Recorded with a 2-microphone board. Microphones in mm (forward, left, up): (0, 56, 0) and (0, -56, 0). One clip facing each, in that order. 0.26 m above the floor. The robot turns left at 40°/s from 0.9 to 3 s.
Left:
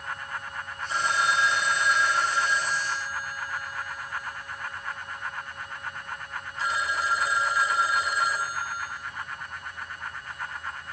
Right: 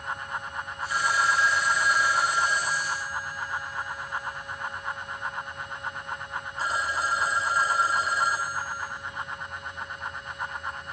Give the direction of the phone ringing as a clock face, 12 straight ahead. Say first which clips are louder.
Even; 11 o'clock.